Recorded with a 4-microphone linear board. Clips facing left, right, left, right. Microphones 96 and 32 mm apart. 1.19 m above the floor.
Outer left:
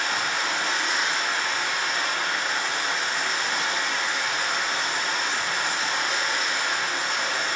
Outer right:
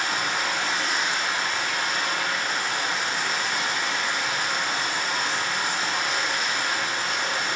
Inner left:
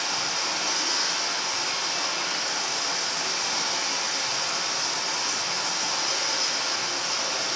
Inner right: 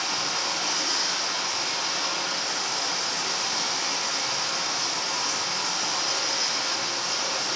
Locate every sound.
0.0 s running water: centre (ahead or behind), 4 m